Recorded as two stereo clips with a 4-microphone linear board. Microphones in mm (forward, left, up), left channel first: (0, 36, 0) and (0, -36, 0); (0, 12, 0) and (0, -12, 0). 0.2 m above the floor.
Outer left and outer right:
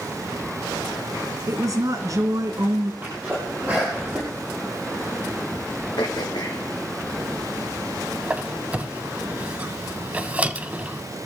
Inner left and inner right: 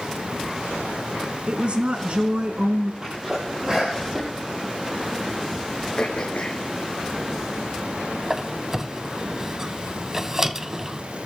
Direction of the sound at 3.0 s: 25° right (ahead or behind).